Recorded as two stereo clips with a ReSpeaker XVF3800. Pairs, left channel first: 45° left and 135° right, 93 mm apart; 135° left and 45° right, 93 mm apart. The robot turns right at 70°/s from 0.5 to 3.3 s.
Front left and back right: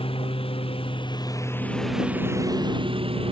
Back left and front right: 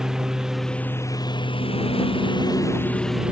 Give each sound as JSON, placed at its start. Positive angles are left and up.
{"t": 0.0, "sound": "a lawn mower", "azimuth_deg": 35}